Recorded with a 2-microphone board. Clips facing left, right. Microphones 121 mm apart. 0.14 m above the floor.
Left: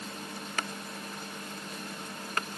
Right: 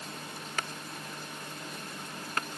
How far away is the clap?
No clap in this recording.